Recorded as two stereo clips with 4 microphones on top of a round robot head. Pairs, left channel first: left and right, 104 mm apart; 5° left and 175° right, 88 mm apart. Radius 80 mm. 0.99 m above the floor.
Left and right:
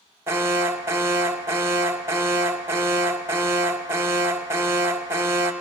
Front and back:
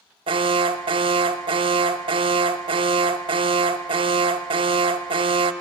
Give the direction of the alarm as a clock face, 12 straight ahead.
5 o'clock.